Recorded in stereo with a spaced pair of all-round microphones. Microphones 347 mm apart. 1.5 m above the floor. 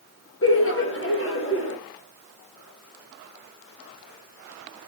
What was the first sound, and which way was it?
Laughter, 35° left (ahead or behind).